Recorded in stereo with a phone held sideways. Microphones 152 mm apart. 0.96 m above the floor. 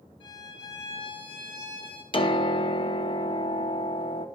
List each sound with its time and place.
0.2 s a violin: 35° left (ahead or behind), 3.5 m
2.1 s a piano: 35° left (ahead or behind), 0.7 m